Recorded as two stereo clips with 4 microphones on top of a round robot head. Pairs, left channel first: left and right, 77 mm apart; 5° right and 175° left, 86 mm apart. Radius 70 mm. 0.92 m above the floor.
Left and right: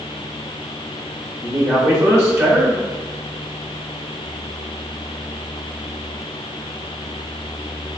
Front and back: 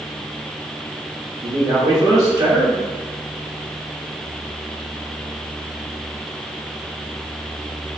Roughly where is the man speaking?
Behind right.